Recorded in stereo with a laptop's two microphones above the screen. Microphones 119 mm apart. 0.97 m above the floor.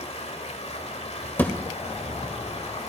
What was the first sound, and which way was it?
Running water, 65° left (ahead or behind).